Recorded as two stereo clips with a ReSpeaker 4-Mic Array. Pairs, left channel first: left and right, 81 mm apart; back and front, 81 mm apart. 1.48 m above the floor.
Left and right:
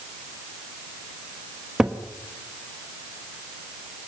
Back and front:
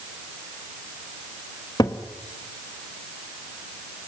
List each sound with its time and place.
1.8 s a cupboard door: 170° right, 1.2 m